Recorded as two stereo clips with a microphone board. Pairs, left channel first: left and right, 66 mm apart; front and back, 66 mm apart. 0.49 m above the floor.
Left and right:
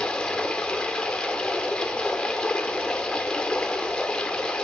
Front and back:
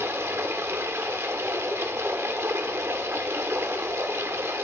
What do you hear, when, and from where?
0.0 s running water: 160° left, 0.8 m